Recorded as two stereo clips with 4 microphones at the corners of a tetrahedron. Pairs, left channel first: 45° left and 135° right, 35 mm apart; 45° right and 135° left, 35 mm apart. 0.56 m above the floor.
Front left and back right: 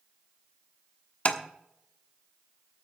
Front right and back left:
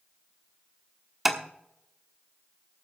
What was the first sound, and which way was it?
Tapping, 55° left.